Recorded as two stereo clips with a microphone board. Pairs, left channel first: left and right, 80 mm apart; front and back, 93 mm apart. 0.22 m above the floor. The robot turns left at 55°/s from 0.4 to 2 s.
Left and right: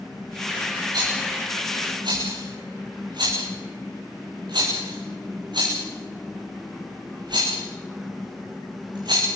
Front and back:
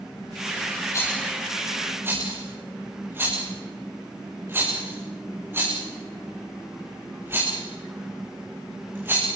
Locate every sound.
0.9 s a rattle: 55° right, 7.5 m; by 9.3 s 115° right, 7.5 m